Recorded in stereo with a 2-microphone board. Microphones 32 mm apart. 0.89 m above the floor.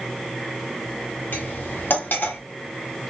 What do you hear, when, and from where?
1.3 s cutlery clinking: 75° left (ahead or behind), 1.2 m